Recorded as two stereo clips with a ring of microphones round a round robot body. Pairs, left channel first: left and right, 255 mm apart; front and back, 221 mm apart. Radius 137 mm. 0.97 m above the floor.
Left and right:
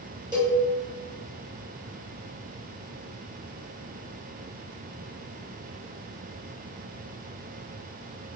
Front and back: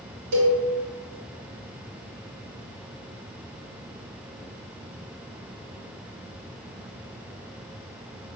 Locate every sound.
0.3 s a cowbell: 165° right, 1.1 m